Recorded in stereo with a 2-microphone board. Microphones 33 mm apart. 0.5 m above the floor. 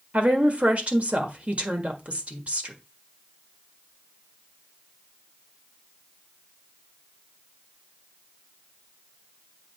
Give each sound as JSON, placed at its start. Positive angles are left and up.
{"t": 0.1, "sound": "a woman speaking", "side_deg": -45, "distance_m": 1.5}